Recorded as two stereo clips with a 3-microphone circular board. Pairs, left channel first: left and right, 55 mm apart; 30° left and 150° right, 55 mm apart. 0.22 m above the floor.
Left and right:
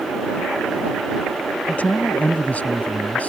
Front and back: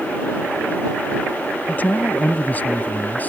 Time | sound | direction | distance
1.7 | a man speaking | 55° left | ?